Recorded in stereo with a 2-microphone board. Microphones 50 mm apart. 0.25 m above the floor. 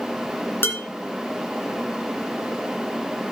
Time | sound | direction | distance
0.6 | dishes clattering | 50° left (ahead or behind) | 2 m